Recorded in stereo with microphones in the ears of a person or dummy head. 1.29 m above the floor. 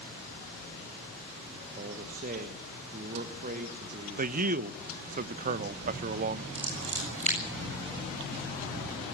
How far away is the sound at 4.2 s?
About 0.7 m.